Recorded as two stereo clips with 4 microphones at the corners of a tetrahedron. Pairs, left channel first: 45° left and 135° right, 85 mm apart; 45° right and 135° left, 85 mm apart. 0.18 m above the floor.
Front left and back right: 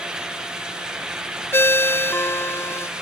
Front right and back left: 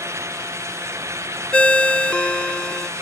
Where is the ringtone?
20° left.